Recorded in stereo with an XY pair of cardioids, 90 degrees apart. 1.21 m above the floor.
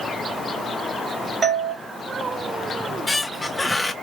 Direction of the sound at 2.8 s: 10° left.